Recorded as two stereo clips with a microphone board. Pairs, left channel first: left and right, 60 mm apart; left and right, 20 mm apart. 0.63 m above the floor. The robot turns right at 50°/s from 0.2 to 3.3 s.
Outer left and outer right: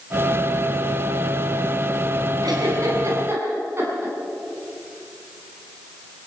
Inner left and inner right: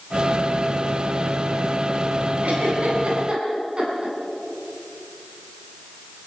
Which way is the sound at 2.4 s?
80° right.